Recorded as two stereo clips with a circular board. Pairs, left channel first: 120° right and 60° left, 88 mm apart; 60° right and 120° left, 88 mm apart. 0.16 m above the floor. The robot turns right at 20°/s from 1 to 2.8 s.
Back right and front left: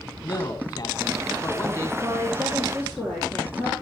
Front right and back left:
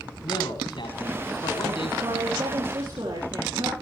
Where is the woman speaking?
160° left, 6.5 m; by 3.7 s 175° left, 6.5 m.